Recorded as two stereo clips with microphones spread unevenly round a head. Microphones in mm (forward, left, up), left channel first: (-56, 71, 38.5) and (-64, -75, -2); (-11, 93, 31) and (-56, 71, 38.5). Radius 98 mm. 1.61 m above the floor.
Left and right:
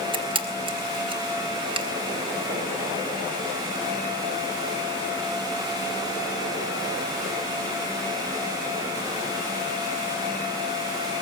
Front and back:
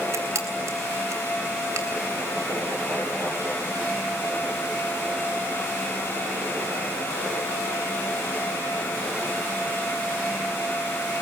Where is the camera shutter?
150° right, 3.5 m.